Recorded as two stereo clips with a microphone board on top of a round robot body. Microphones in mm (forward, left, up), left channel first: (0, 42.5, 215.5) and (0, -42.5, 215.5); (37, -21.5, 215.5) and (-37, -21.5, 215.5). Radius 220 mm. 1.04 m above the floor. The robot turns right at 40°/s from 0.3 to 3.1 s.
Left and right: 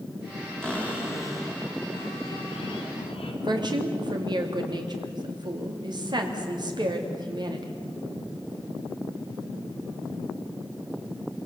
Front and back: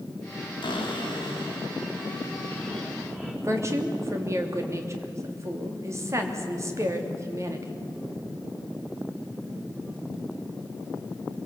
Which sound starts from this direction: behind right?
A woman speaking, at 3.4 s.